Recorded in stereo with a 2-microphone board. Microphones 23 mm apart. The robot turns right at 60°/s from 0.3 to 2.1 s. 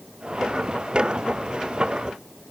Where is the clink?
No clink in this recording.